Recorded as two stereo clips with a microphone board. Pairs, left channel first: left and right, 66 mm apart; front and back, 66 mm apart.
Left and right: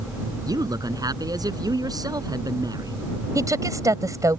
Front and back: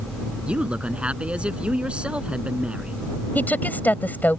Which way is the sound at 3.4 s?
60° right.